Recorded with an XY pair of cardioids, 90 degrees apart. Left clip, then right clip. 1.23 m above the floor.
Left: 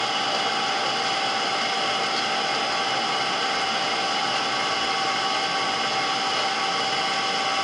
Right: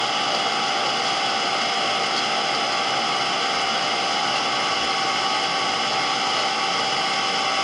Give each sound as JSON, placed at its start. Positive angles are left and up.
{"t": 0.0, "sound": "an engine running", "azimuth_deg": -25, "distance_m": 1.2}